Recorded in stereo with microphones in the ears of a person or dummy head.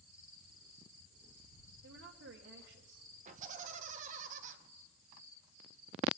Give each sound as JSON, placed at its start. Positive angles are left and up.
{"t": 1.8, "sound": "a woman speaking", "side_deg": -75, "distance_m": 1.2}
{"t": 3.2, "sound": "laughter", "side_deg": -45, "distance_m": 1.4}